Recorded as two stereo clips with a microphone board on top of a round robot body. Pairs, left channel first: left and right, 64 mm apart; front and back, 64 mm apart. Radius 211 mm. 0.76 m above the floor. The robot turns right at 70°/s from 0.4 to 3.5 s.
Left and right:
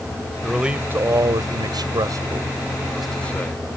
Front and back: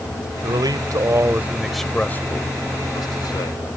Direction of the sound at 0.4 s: Straight behind.